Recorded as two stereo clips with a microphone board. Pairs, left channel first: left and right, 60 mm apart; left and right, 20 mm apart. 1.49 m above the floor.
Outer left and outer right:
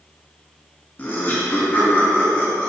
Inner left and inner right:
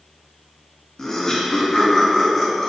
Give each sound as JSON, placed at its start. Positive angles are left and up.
{"t": 1.0, "sound": "laughter", "side_deg": 30, "distance_m": 3.0}